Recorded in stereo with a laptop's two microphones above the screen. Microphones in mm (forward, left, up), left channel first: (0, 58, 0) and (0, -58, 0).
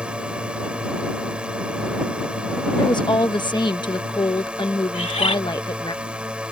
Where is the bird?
65° left (ahead or behind).